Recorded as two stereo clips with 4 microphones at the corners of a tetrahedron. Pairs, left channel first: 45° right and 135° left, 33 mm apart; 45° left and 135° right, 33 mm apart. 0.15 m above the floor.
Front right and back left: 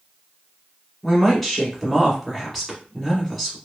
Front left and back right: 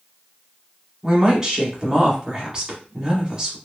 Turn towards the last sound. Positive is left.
turn(degrees=-115)